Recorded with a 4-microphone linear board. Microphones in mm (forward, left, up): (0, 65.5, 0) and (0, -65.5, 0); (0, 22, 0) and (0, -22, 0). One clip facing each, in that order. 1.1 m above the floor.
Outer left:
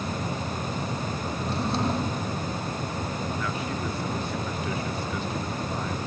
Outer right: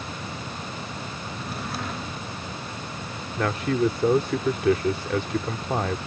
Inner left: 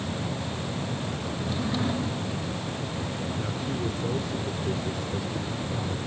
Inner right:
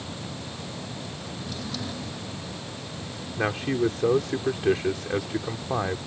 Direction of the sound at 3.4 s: 85° right.